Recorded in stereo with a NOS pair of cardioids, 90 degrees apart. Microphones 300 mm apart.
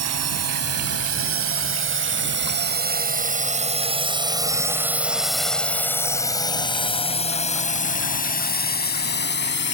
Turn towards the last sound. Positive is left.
turn(degrees=35)